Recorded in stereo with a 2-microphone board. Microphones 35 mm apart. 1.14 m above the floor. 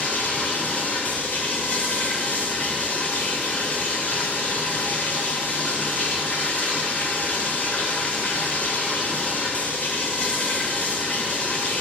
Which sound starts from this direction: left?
Running water, at 0.0 s.